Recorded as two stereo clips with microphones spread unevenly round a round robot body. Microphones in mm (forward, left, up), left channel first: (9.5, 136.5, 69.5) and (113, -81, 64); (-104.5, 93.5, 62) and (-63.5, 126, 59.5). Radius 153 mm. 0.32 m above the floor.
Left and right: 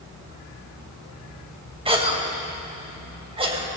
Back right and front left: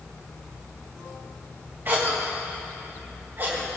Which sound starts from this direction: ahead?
A cough, at 1.9 s.